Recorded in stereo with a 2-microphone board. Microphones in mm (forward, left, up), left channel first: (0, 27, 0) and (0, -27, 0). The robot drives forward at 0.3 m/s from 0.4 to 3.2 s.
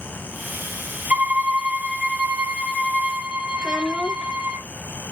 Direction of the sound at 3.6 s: 10° left (ahead or behind).